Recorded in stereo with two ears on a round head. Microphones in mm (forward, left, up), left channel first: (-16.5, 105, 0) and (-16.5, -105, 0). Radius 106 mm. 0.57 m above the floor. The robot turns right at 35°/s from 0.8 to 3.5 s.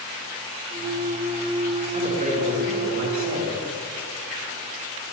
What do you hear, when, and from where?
1.9 s a man speaking: 150° right, 6 m; by 3.6 s 95° right, 6 m